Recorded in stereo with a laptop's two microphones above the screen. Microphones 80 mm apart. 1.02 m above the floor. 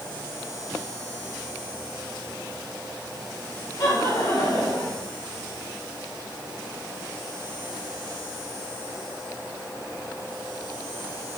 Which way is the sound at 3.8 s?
75° left (ahead or behind).